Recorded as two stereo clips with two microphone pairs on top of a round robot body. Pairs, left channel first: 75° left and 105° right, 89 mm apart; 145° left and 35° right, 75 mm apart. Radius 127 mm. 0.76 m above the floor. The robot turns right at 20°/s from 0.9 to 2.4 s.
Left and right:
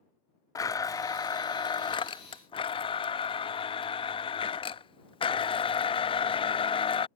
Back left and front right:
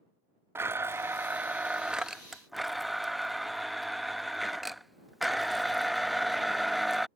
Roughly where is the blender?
Ahead left.